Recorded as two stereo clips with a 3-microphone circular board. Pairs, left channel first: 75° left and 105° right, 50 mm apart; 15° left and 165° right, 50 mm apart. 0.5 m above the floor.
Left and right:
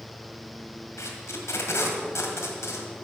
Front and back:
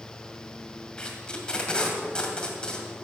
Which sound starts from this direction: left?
Tape being pulled, at 1.0 s.